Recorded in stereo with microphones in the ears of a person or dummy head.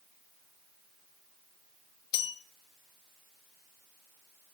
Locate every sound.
2.1 s a bell: 25° left (ahead or behind), 0.6 m